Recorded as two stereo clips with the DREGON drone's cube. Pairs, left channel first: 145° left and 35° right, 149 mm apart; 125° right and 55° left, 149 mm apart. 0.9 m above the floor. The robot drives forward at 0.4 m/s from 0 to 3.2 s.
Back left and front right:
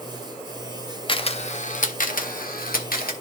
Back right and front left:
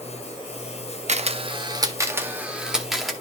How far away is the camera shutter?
About 0.6 m.